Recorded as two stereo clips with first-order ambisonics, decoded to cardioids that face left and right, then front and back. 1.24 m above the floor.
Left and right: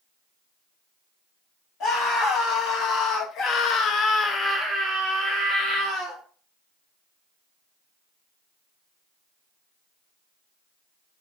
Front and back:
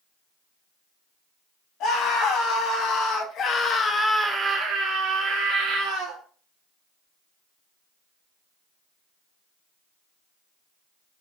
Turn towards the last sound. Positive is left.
turn(degrees=-150)